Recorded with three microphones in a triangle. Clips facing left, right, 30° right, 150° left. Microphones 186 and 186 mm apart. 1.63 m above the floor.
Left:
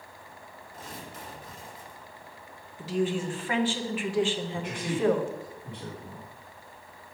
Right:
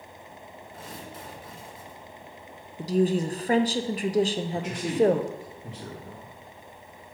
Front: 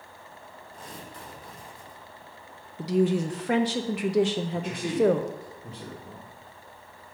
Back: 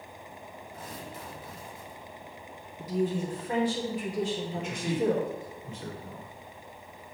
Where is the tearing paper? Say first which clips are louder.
Right 1 dB, back 1 dB; 125° right, 2.5 m.